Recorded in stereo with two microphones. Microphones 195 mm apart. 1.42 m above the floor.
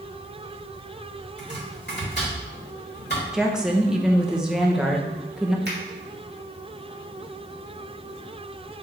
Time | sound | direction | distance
1.4 | chopping | 60° left (ahead or behind) | 3 m
3.3 | a woman speaking | 5° right (ahead or behind) | 0.9 m
5.7 | a finger snap | 60° right (ahead or behind) | 2.5 m